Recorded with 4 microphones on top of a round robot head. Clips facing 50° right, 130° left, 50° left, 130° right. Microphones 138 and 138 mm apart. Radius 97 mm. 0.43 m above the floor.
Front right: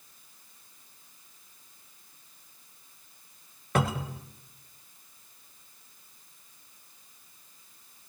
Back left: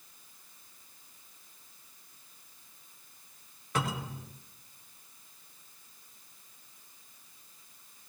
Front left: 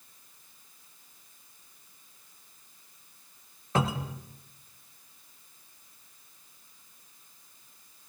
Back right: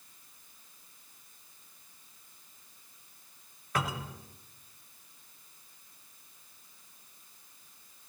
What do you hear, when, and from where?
3.8 s a cupboard door: 15° right, 1.2 m